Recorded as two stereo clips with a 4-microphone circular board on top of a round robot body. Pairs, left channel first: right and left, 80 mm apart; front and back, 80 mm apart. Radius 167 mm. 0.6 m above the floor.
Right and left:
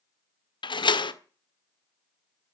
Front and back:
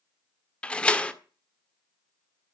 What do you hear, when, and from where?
0.6 s a door slam: 75° right, 1.7 m